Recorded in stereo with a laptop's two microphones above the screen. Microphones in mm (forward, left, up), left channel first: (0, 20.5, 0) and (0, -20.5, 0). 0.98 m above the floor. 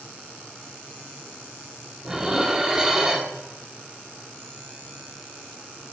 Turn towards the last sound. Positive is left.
turn(degrees=-15)  # may be behind; listen again after turning